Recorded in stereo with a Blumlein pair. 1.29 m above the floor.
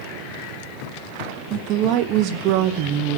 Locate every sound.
1.5 s a woman speaking: 40° right, 0.7 m